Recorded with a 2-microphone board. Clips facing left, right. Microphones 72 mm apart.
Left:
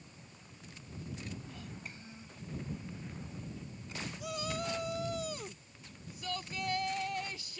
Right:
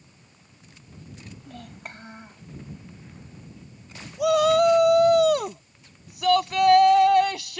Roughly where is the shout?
Right.